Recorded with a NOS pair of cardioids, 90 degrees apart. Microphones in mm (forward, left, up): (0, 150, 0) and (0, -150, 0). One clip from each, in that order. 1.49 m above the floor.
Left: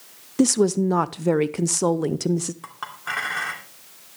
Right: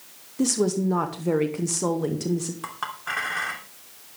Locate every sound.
0.4 s a woman speaking: 50° left, 0.6 m
2.6 s a clink: 5° left, 2.5 m